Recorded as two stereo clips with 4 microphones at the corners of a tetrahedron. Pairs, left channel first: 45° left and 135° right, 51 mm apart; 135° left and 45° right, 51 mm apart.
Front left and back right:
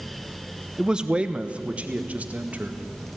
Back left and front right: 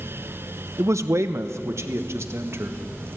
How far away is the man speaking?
About 0.8 m.